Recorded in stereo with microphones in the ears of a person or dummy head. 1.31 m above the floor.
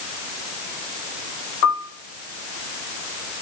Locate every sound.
1.6 s a piano: 75° left (ahead or behind), 1.8 m